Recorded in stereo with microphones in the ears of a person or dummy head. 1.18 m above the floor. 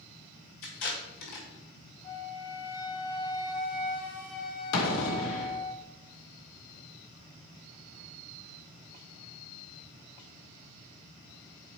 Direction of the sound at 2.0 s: 25° left (ahead or behind).